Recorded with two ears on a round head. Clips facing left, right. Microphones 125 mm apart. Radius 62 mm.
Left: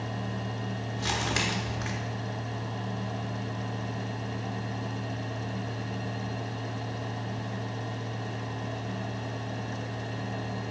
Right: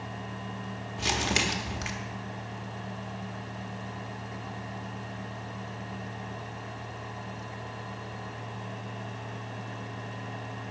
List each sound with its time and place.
1.0 s crumpling: 20° right (ahead or behind), 0.9 m